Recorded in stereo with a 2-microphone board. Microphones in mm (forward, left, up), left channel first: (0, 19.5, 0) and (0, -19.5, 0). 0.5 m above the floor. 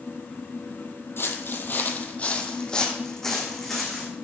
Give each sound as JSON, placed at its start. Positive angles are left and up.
{"t": 1.2, "sound": "footsteps", "side_deg": 60, "distance_m": 0.9}